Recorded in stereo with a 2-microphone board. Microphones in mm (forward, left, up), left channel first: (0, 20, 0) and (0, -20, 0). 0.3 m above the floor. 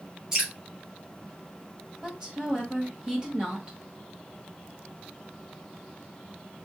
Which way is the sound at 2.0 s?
25° right (ahead or behind).